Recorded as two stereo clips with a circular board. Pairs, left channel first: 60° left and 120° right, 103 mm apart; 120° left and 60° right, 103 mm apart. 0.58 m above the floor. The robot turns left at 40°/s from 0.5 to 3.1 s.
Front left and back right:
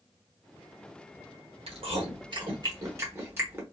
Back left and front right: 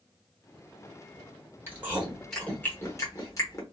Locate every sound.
1.7 s chewing: 125° right, 1.1 m; by 3.6 s 175° left, 1.1 m